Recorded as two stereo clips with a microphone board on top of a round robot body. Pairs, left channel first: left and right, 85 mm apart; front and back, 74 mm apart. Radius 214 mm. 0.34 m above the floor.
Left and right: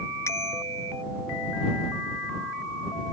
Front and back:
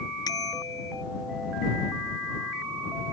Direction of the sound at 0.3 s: 30° left.